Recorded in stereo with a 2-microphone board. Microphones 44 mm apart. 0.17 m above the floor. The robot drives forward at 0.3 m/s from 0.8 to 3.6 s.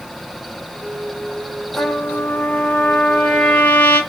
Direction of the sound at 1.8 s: 60° left (ahead or behind).